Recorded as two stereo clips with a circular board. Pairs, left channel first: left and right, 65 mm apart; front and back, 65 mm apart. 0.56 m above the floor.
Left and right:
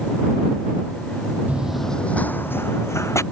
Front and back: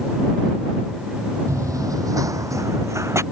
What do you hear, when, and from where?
1.5 s running footsteps: 155° right; by 3.2 s 135° left